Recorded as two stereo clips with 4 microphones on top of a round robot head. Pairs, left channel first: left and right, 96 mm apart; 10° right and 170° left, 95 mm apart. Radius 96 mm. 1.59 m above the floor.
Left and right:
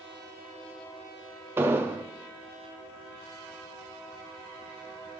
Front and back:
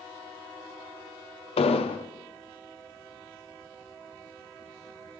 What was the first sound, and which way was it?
An explosion, 20° right.